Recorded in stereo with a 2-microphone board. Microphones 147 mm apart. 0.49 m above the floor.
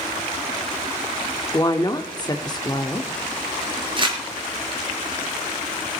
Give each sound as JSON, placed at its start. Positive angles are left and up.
{"t": 1.5, "sound": "a woman speaking", "side_deg": 30, "distance_m": 0.8}
{"t": 4.0, "sound": "crumpling", "side_deg": -35, "distance_m": 3.5}